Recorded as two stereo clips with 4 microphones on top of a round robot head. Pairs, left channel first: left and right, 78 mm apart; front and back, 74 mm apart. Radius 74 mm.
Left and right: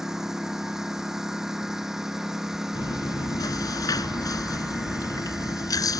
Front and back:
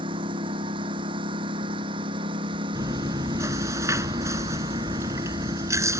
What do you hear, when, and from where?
0.0 s a lawn mower: 175° right
2.8 s chewing: 130° left